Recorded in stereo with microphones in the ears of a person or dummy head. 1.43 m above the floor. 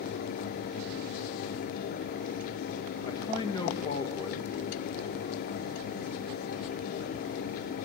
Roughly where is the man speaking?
Left.